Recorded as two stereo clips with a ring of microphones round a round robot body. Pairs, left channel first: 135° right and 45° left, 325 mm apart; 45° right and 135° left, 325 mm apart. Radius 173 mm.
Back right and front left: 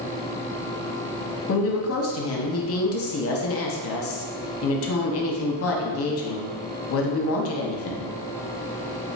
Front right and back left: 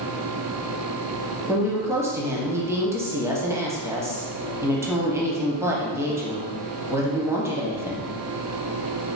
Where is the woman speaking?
145° right, 0.8 m.